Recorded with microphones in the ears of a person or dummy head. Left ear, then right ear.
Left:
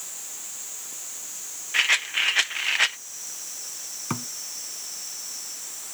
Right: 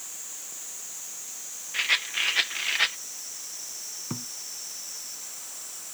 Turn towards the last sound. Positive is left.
turn(degrees=65)  # may be behind; listen again after turning